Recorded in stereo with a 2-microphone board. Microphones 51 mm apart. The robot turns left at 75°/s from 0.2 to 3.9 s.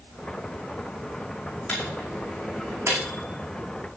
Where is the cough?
I don't hear a cough.